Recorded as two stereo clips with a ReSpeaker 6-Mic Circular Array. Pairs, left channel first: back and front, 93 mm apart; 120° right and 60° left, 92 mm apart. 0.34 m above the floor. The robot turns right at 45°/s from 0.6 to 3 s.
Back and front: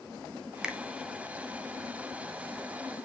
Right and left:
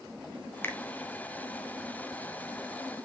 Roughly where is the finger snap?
Right.